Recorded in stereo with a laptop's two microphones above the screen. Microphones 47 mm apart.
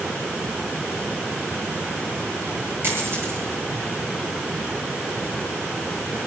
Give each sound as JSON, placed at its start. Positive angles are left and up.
{"t": 2.8, "sound": "a dropped coin", "side_deg": -60, "distance_m": 8.0}